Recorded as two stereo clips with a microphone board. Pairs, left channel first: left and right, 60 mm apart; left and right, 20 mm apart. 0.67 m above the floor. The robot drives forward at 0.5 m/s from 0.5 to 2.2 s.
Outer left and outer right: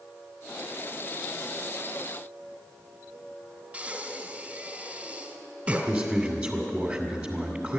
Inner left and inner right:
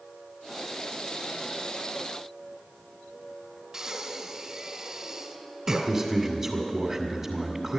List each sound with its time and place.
3.7 s breathing: 25° right (ahead or behind), 1.9 m
5.9 s a man speaking: 25° right (ahead or behind), 2 m